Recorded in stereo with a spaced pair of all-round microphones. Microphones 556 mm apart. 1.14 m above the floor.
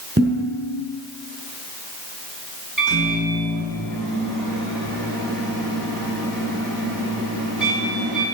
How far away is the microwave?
About 7 m.